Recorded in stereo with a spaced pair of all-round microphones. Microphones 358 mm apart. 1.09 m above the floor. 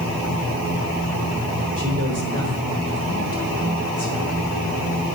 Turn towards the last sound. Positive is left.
turn(degrees=-30)  # may be behind; listen again after turning